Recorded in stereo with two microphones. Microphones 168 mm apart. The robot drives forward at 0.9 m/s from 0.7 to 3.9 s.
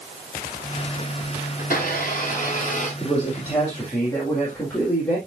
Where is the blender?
60° left (ahead or behind), 4 m; by 2.9 s 50° left (ahead or behind), 4.5 m.